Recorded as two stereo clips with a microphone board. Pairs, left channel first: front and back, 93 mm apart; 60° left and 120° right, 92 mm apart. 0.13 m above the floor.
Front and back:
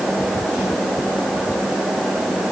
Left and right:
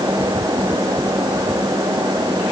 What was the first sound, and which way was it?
Only background noise.